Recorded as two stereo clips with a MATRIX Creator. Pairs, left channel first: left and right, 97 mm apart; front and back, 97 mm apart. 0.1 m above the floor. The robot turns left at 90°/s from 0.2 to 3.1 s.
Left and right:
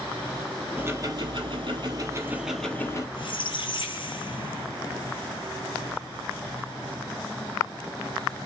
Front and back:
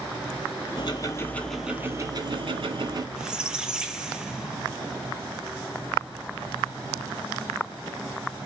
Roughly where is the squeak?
Left.